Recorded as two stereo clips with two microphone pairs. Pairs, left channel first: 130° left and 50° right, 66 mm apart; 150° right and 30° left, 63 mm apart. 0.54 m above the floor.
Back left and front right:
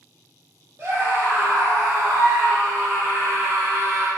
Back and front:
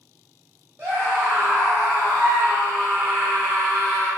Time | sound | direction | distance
0.8 | a scream | 15° right | 1.1 m